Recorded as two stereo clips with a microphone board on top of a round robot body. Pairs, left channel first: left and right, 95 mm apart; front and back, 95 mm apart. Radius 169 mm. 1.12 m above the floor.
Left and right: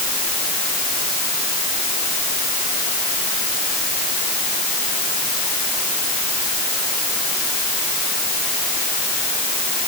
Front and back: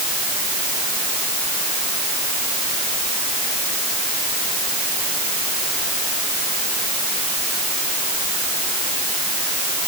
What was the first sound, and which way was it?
Only background noise.